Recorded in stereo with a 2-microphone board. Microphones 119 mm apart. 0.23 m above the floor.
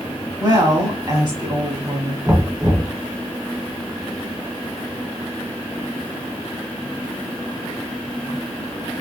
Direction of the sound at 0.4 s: 40° right (ahead or behind).